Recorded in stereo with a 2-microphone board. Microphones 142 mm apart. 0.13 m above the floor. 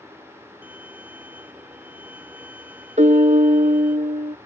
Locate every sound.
0.6 s a violin: 10° right (ahead or behind)
3.0 s a piano: 55° right (ahead or behind)